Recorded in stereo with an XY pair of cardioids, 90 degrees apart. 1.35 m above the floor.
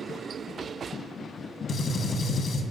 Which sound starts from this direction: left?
A gunshot, at 1.7 s.